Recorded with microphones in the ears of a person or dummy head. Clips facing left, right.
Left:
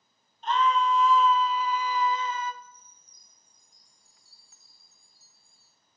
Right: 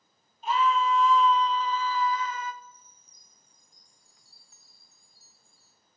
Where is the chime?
60° left (ahead or behind), 4 m.